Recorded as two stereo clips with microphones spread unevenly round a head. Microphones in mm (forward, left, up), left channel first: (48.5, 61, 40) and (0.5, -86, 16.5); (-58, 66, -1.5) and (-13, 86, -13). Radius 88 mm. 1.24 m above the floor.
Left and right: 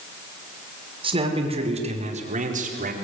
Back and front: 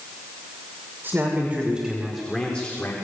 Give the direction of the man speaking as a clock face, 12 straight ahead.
2 o'clock.